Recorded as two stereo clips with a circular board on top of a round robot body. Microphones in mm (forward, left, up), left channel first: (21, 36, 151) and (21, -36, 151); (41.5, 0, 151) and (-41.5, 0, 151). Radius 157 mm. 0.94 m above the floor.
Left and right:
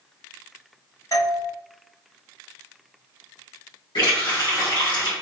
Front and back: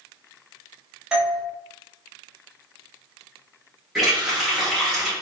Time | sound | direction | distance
1.1 | a doorbell | 100° left | 1.1 m
4.0 | a running tap | 90° left | 1.7 m